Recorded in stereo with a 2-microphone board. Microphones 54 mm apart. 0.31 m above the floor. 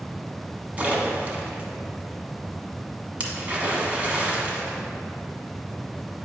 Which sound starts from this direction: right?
A splash, at 0.8 s.